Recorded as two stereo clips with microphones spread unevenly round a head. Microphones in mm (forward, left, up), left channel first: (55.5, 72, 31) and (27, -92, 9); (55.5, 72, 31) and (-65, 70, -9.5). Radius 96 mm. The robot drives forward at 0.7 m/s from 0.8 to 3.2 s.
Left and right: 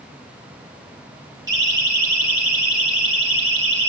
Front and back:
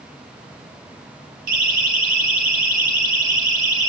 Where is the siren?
175° right, 6 m; by 3.9 s 165° left, 8.5 m.